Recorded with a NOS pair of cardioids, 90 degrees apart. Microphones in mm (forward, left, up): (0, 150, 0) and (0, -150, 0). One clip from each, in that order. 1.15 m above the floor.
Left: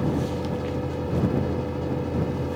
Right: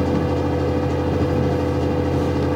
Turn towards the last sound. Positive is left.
turn(degrees=-65)